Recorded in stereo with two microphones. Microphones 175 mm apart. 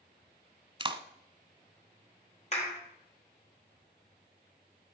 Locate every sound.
0.8 s a clap: 30° right (ahead or behind), 1.0 m
2.5 s a clap: 40° left (ahead or behind), 3.5 m